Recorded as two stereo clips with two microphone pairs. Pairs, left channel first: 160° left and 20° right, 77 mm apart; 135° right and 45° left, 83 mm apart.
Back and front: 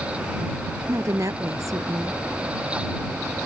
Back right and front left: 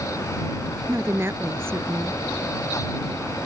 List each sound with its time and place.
0.9 s a woman speaking: 5° right